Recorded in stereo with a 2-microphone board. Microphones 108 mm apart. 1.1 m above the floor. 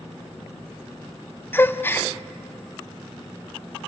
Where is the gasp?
20° left (ahead or behind), 0.5 m.